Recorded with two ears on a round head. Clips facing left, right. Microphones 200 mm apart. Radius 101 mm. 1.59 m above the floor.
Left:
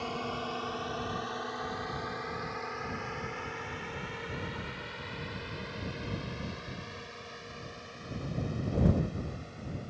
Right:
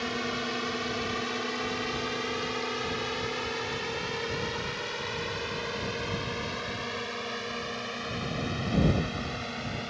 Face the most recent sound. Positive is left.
turn(degrees=-70)  # may be behind; listen again after turning